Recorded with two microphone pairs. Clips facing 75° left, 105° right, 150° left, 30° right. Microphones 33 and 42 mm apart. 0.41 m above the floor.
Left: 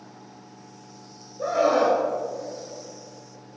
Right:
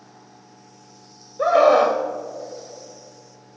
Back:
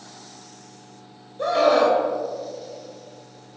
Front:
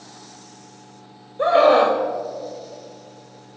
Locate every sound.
1.4 s a scream: 85° right, 2 m